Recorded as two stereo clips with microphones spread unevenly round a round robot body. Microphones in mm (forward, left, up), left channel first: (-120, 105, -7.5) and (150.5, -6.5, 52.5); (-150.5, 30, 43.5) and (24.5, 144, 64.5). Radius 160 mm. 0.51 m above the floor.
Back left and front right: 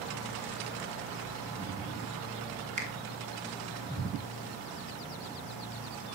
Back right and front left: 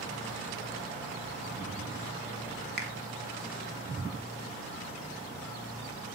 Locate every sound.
2.8 s a finger snap: 45° left, 1.2 m